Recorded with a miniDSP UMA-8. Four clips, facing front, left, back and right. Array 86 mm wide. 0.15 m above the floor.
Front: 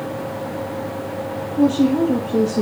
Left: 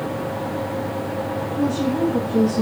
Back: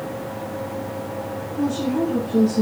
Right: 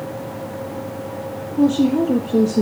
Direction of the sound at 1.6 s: 55° right.